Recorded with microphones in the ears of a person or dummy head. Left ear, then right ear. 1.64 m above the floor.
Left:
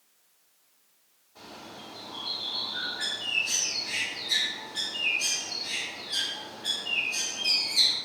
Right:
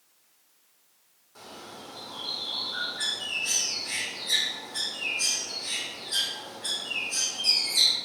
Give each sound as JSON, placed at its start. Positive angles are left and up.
{"t": 1.4, "sound": "a bird", "side_deg": -55, "distance_m": 1.5}